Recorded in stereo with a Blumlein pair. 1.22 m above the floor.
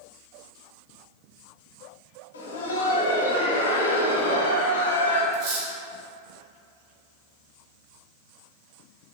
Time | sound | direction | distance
2.3 | laughter | 70° left | 1.1 m
5.3 | cutlery clinking | 45° right | 1.4 m